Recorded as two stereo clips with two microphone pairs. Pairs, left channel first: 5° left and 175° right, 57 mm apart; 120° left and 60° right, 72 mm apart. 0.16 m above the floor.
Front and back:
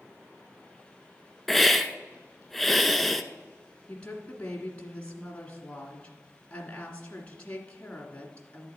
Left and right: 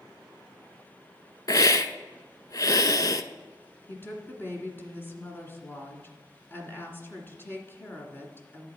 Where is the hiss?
100° left, 0.5 m.